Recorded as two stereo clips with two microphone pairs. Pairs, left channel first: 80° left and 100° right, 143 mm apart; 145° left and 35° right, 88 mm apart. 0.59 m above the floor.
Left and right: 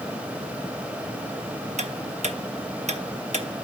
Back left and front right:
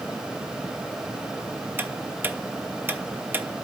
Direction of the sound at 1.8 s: 90° right.